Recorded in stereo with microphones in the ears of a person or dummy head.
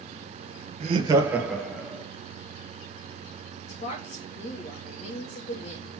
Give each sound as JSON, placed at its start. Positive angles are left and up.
{"t": 0.8, "sound": "laughter", "side_deg": -35, "distance_m": 1.3}
{"t": 3.7, "sound": "a woman speaking", "side_deg": 45, "distance_m": 1.4}